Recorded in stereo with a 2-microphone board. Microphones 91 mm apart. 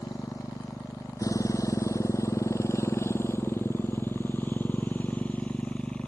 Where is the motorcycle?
40° left (ahead or behind); by 6.1 s 10° left (ahead or behind).